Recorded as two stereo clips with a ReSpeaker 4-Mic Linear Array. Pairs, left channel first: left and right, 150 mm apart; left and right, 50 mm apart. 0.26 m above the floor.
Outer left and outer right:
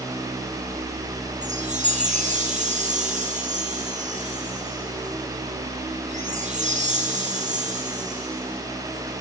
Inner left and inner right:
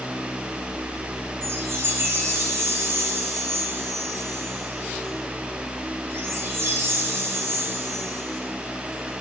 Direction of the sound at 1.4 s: 55° right (ahead or behind).